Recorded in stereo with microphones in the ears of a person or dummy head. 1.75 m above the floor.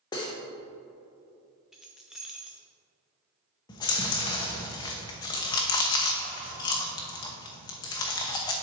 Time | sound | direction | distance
0.1 | cutlery clinking | 20° left (ahead or behind) | 1.0 m
1.7 | keys jangling | 5° right (ahead or behind) | 0.8 m
3.7 | chewing | 25° left (ahead or behind) | 0.9 m